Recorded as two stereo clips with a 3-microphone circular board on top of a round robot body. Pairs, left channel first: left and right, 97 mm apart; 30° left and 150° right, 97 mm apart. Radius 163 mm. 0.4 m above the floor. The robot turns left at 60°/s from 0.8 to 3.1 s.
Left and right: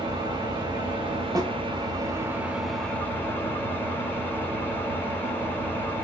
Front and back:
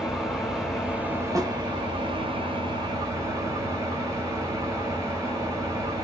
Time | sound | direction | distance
0.0 | an engine running | 65° right | 1.4 m
1.4 | a snare drum | 115° right | 1.1 m